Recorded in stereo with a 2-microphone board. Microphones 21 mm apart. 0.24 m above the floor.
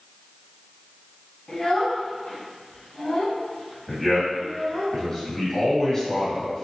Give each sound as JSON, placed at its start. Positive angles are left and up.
{"t": 1.5, "sound": "a child speaking", "side_deg": 40, "distance_m": 1.2}
{"t": 3.9, "sound": "a man speaking", "side_deg": 30, "distance_m": 1.6}